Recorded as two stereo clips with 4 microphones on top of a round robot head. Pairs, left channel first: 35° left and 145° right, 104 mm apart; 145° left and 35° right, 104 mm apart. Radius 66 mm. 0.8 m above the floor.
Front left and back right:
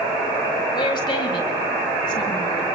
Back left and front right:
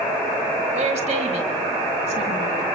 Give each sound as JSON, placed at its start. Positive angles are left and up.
{"t": 0.7, "sound": "a woman speaking", "azimuth_deg": -15, "distance_m": 4.0}